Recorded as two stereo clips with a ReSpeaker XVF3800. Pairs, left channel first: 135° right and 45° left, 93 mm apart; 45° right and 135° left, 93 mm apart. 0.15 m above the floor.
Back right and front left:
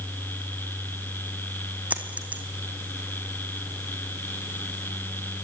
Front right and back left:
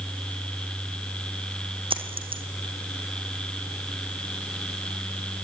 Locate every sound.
1.9 s a dropped coin: 120° left, 3 m